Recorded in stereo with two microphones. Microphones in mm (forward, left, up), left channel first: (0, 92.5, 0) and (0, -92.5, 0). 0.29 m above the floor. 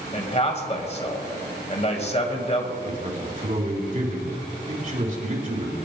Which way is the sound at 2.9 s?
45° right (ahead or behind).